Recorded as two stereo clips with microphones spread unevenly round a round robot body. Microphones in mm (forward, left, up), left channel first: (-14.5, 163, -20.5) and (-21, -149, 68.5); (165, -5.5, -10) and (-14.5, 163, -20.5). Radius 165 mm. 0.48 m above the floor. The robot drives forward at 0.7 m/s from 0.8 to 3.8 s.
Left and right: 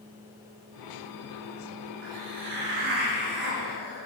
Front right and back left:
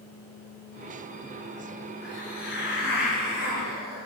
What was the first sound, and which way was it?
A hiss, 100° right.